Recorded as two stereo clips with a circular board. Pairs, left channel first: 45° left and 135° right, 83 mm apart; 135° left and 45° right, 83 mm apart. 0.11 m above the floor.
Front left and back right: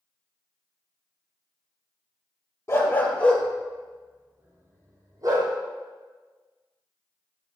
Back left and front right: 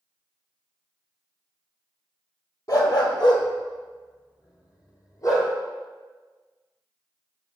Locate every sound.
2.7 s a dog barking: 100° left, 1.2 m; by 5.5 s 175° right, 1.8 m